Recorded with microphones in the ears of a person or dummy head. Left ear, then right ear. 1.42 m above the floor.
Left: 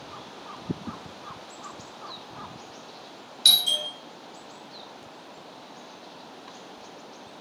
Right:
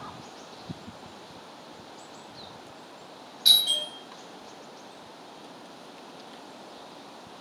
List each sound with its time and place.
3.5 s a doorbell: 55° left (ahead or behind), 1.2 m